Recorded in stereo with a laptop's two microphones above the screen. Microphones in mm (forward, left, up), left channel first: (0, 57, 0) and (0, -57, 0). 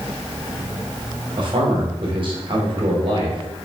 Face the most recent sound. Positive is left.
turn(degrees=-45)  # may be behind; listen again after turning